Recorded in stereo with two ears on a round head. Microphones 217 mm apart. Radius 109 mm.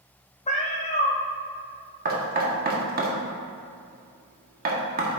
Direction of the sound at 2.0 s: 35° right (ahead or behind).